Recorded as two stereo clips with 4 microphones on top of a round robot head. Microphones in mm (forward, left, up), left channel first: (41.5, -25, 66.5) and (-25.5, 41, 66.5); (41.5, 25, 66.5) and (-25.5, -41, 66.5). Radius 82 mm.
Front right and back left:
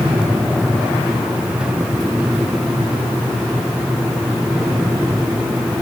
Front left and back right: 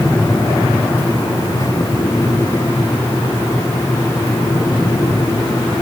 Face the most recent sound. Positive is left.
No sound to turn to.